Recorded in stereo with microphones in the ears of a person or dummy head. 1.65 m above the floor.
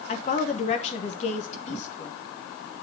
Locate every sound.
0.1 s a woman speaking: 35° left (ahead or behind), 1.2 m